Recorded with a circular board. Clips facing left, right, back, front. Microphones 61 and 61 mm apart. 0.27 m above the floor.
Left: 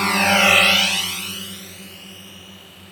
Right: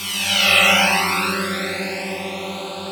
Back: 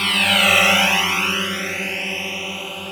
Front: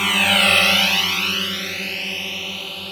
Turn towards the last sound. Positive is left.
turn(degrees=-110)